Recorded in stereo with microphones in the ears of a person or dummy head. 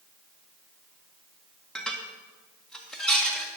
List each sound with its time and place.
1.8 s dishes clattering: centre (ahead or behind), 1.7 m